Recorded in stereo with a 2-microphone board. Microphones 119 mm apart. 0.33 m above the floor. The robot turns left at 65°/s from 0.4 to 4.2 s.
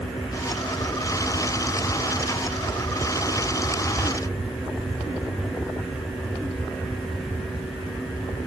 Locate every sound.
Only background noise.